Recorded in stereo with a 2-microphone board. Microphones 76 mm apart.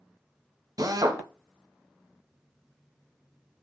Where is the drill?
50° right (ahead or behind), 1.2 m.